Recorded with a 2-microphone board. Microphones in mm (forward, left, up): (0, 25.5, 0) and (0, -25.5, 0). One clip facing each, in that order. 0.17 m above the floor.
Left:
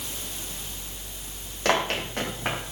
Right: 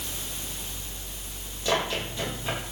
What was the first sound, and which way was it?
Running footsteps, 70° left (ahead or behind).